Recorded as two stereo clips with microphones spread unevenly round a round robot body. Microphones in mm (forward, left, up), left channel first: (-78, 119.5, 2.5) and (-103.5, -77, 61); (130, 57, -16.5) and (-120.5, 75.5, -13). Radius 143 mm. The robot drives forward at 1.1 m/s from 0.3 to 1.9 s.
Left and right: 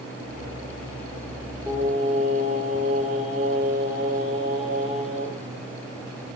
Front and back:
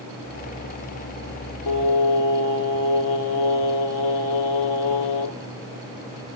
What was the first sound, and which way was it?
Singing, 15° right.